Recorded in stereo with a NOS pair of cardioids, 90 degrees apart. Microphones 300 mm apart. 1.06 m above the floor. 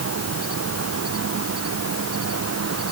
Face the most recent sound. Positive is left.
turn(degrees=-50)